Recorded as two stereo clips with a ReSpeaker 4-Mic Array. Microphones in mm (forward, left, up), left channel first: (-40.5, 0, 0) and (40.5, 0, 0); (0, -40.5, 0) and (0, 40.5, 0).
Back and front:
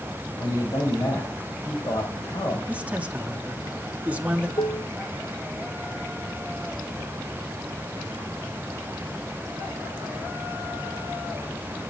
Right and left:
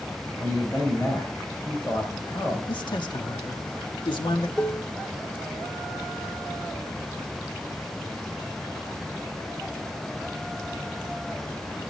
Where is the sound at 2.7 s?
70° right, 1.5 m.